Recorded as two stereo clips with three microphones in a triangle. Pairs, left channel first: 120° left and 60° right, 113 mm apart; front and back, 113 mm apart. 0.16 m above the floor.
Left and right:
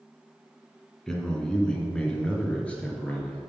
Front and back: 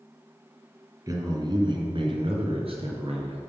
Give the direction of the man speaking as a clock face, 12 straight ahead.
5 o'clock.